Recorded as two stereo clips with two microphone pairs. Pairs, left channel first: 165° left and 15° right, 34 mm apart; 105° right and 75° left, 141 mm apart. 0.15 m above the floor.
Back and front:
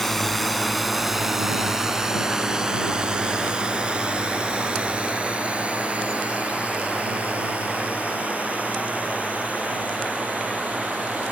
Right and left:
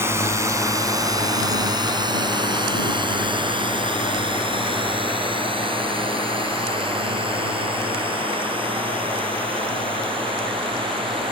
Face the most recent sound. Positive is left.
turn(degrees=25)